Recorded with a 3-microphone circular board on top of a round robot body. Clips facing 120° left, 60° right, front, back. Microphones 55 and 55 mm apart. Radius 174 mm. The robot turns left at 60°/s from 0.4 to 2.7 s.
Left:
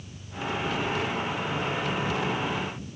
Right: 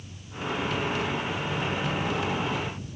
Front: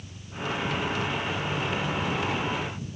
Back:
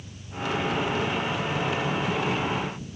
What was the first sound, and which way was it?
An engine running, 105° left.